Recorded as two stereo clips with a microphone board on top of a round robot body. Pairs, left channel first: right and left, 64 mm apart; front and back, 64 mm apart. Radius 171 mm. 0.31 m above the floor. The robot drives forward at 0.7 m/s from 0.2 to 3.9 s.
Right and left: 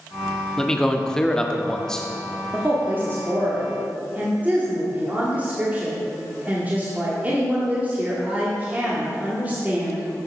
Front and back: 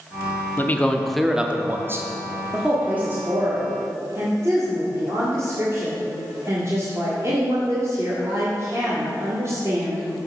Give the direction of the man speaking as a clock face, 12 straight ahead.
1 o'clock.